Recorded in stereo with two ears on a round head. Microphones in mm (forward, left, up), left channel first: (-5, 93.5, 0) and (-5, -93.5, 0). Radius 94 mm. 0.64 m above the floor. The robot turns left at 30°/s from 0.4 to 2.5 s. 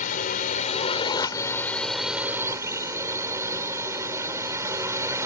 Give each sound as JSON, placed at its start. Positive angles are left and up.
{"t": 0.0, "sound": "a drone", "azimuth_deg": 45}